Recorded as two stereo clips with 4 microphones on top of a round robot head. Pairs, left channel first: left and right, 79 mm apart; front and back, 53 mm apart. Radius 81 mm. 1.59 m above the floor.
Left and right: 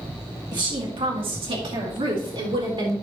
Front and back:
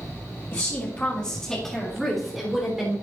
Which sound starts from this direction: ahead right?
A woman speaking, at 0.5 s.